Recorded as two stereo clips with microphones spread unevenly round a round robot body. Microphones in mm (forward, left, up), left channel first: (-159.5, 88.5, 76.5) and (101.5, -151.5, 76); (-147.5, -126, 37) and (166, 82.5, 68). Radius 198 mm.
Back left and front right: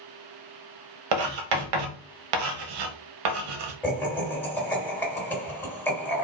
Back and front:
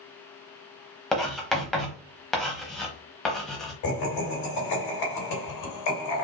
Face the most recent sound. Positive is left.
turn(degrees=-140)